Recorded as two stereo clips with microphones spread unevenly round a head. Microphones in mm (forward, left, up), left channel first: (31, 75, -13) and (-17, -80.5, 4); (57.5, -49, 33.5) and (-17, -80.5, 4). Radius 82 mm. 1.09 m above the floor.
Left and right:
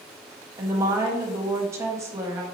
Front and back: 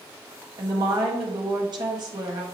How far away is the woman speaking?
About 1.7 m.